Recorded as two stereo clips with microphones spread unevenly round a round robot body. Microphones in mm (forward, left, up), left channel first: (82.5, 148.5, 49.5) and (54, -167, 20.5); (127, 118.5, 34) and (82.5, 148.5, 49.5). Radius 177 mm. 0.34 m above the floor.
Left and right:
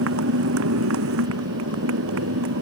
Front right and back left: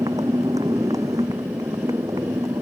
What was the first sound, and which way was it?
A motorcycle, 150° right.